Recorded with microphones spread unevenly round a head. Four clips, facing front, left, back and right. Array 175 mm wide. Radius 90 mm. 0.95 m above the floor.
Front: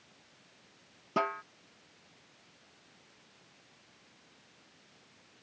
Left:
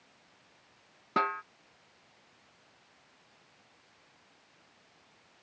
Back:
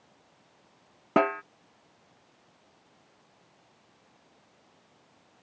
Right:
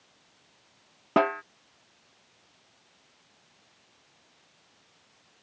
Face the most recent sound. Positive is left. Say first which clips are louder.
# right 6 dB, back 8 dB
turn(degrees=-140)